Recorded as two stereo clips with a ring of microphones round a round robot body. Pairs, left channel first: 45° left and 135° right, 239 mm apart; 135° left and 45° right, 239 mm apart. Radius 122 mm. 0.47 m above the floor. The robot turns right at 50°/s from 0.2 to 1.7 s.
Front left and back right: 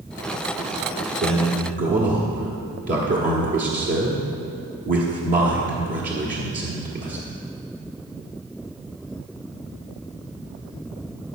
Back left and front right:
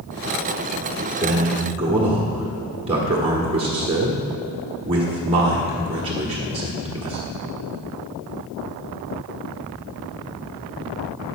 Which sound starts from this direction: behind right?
A man speaking, at 1.2 s.